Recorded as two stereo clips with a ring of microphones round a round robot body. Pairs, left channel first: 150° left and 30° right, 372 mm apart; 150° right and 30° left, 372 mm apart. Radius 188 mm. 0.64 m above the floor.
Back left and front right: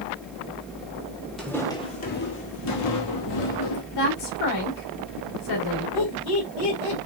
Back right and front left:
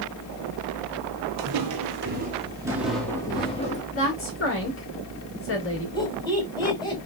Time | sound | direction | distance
1.4 | footsteps | 60° left | 1.2 m
3.9 | a woman speaking | 155° left | 2.5 m
6.0 | laughter | 130° left | 2.5 m